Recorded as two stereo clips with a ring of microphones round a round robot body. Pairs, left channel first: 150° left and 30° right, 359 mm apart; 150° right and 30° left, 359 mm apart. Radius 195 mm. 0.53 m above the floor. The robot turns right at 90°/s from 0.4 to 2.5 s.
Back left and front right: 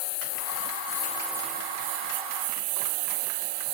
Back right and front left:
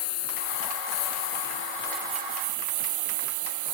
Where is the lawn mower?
160° left; by 3.7 s 10° right.